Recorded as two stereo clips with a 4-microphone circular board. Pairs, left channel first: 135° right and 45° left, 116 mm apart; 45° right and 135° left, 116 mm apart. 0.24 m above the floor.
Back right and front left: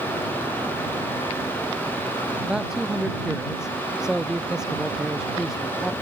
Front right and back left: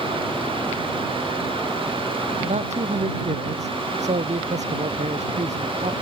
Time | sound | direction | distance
2.4 | a man speaking | 130° left | ?